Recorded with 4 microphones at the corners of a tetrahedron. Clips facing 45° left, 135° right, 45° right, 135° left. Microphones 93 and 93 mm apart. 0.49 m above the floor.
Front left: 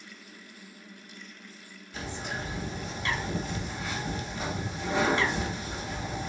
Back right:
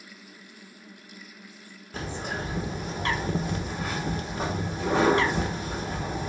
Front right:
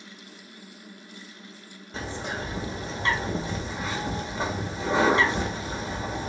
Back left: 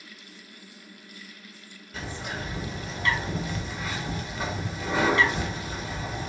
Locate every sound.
1.9 s a bird: 100° right, 0.8 m